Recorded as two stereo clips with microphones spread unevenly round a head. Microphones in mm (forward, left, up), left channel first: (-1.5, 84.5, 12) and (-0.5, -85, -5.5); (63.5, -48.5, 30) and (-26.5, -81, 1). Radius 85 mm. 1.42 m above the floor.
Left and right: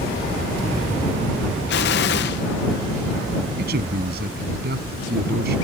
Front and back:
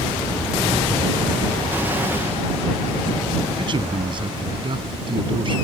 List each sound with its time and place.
1.7 s an explosion: 120° left
3.6 s a man speaking: 125° right